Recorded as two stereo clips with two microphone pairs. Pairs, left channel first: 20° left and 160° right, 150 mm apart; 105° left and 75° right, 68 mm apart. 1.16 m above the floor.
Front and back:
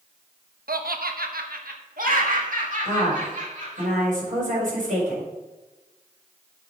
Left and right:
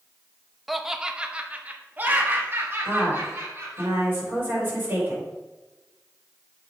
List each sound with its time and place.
0.7 s laughter: 165° right, 0.9 m; by 3.9 s 125° right, 2.5 m
2.9 s a woman speaking: 135° right, 5.5 m